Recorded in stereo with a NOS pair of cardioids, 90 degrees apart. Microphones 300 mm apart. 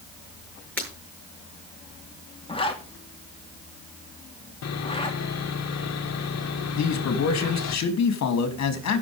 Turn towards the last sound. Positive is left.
turn(degrees=60)